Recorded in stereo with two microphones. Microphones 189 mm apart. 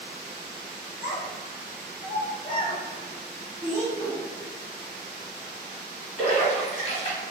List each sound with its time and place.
1.0 s a child speaking: 75° left (ahead or behind), 1.4 m; by 3.8 s 30° left (ahead or behind), 2.5 m
3.9 s a whoosh: 20° left (ahead or behind), 1.4 m
6.2 s a splash: 40° left (ahead or behind), 1.3 m